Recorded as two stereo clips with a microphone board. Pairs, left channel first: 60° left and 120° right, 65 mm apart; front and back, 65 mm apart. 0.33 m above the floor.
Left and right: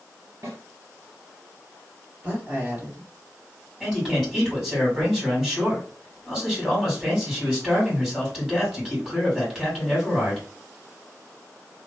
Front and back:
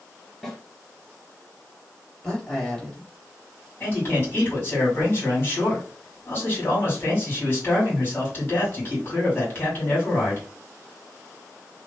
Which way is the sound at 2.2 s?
80° right.